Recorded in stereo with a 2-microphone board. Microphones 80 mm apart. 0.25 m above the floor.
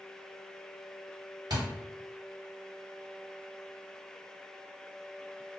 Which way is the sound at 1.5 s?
60° right (ahead or behind).